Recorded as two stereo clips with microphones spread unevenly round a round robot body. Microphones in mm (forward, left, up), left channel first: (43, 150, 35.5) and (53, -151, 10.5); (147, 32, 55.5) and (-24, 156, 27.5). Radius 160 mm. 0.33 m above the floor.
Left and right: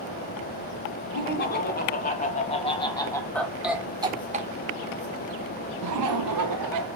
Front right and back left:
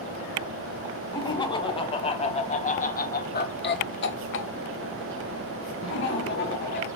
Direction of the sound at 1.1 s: 35° left.